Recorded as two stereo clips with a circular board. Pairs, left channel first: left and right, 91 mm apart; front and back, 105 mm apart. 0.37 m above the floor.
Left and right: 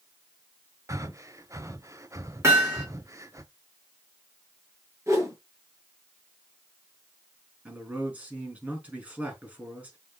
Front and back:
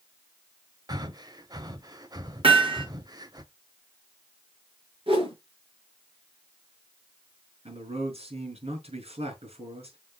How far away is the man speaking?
About 5 m.